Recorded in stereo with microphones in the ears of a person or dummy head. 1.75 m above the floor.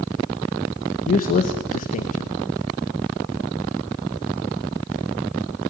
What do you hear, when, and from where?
1.1 s a man speaking: 40° left (ahead or behind), 2 m